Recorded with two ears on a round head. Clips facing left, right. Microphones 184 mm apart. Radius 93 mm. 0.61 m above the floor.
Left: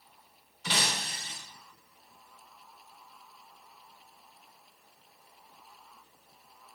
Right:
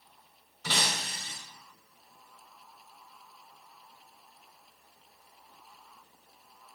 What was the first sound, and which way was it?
Breaking glass, 45° right (ahead or behind).